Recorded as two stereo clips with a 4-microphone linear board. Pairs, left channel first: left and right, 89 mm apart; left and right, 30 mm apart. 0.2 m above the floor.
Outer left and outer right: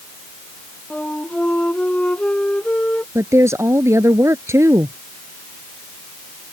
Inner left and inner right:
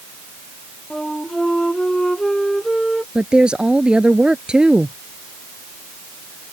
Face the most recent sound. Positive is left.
turn(degrees=-30)  # may be behind; listen again after turning